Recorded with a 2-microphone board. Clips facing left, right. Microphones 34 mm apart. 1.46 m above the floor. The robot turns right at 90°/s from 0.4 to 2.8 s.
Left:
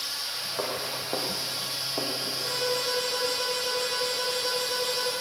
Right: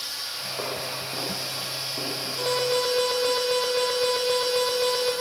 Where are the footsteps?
10° left (ahead or behind), 7 m; by 2.4 s 10° right (ahead or behind), 5 m.